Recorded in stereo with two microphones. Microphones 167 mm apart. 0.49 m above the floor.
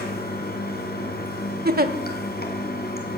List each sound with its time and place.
0.0 s running water: 70° left (ahead or behind), 2.5 m
1.6 s a giggle: 65° right (ahead or behind), 0.9 m